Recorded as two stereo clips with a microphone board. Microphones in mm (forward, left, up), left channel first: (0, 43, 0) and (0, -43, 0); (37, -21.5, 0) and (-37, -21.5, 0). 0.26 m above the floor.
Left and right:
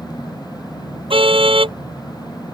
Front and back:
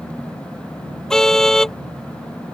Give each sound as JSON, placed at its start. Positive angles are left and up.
{"t": 1.1, "sound": "a car horn", "azimuth_deg": -85}